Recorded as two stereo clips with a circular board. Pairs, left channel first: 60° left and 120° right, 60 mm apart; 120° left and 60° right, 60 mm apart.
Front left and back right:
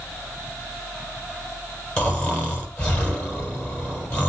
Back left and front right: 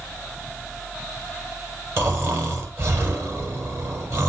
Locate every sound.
2.0 s snoring: 15° right, 7 m